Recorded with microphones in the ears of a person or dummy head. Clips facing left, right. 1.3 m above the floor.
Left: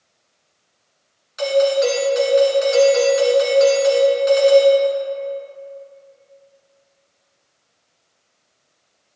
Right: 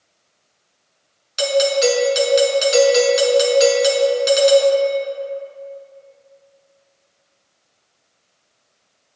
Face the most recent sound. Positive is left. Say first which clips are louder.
# left 1 dB
turn(degrees=-40)  # may be behind; listen again after turning